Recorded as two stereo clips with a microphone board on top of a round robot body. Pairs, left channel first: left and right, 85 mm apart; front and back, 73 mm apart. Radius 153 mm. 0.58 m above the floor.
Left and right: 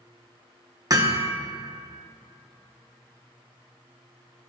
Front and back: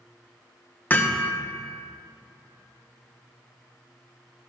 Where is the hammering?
60° right, 1.1 m.